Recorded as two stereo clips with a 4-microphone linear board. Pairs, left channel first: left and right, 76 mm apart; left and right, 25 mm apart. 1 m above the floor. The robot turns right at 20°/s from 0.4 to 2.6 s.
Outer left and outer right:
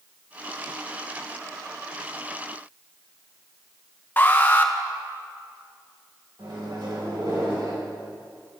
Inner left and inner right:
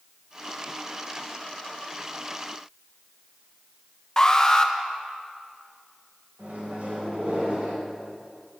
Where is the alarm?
25° left (ahead or behind), 0.8 m.